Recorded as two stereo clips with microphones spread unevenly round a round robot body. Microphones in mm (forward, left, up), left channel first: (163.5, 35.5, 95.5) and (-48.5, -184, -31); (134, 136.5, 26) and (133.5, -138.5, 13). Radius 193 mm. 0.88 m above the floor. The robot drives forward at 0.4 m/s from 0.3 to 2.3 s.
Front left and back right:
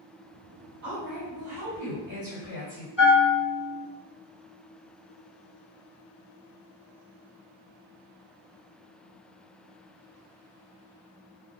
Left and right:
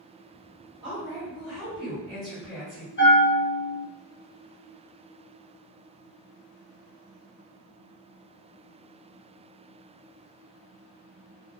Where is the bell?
165° left, 1.1 m.